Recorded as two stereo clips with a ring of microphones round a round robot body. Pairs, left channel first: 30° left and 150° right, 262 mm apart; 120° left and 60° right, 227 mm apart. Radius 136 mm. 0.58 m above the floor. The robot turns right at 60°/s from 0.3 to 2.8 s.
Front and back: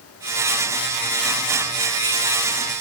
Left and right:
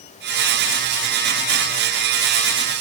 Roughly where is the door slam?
I don't hear a door slam.